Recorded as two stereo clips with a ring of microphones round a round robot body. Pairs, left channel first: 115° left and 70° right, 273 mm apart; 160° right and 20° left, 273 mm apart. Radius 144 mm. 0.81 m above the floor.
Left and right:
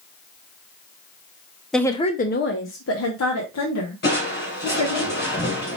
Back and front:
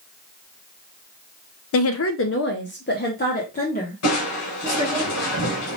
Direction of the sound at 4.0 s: 170° left.